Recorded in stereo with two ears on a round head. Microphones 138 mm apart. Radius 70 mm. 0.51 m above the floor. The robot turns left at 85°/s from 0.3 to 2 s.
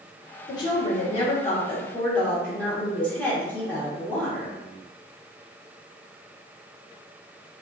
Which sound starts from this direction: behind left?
A woman speaking, at 0.5 s.